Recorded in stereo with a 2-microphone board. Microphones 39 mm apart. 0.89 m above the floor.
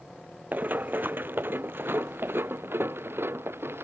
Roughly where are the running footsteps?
Right.